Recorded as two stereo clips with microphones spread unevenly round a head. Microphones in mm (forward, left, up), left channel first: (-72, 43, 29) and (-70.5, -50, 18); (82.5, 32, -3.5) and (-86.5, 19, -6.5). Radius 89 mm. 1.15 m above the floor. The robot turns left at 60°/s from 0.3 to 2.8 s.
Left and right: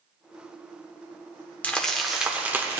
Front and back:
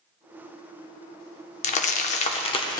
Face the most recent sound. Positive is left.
turn(degrees=-55)